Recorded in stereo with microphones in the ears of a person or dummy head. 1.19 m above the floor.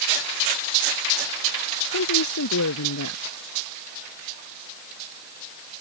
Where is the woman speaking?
85° left.